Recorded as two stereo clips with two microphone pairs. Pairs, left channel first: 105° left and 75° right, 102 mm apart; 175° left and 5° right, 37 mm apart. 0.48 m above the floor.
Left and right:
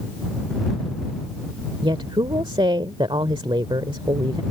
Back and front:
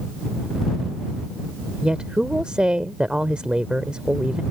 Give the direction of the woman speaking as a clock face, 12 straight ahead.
2 o'clock.